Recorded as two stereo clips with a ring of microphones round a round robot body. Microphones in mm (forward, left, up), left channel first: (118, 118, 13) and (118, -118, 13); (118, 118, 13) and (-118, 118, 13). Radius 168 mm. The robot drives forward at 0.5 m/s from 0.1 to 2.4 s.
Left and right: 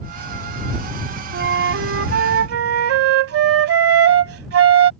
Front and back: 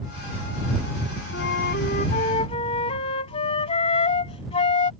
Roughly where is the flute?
Ahead right.